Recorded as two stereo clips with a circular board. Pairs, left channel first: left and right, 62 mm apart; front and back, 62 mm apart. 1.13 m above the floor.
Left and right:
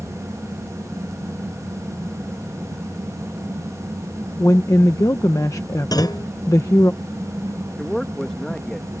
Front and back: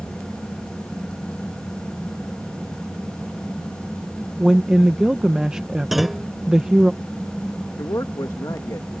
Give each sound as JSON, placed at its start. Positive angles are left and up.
{"t": 4.4, "sound": "a woman speaking", "azimuth_deg": 105}
{"t": 5.9, "sound": "a clunk", "azimuth_deg": 95}
{"t": 7.8, "sound": "a man speaking", "azimuth_deg": 10}